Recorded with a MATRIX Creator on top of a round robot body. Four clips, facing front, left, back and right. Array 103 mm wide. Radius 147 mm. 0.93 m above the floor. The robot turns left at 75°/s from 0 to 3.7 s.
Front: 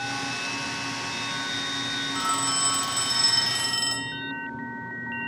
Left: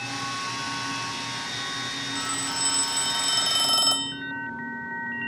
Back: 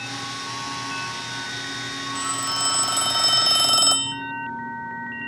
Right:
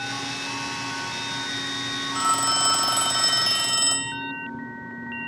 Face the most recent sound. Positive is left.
turn(degrees=170)